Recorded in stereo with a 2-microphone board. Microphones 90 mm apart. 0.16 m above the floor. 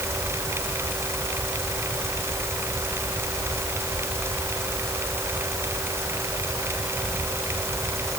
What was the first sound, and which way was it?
Only background noise.